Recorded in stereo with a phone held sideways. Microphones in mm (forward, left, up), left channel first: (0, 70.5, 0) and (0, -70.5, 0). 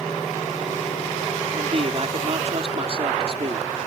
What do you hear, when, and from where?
1.5 s a man speaking: 45° right (ahead or behind)